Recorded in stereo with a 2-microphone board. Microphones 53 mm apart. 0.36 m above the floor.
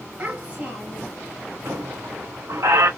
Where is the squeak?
75° right (ahead or behind), 1.2 m.